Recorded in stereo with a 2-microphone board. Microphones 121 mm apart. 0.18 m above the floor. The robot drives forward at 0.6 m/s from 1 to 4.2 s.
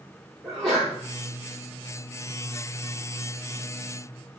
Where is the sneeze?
25° right (ahead or behind), 3.5 m.